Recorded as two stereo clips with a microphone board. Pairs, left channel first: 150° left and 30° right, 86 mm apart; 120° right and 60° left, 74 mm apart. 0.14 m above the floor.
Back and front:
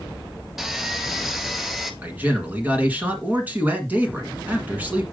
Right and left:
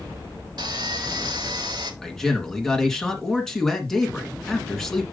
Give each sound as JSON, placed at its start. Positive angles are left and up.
{"t": 0.6, "sound": "sawing", "azimuth_deg": 55, "distance_m": 0.9}
{"t": 2.0, "sound": "a man speaking", "azimuth_deg": -55, "distance_m": 1.7}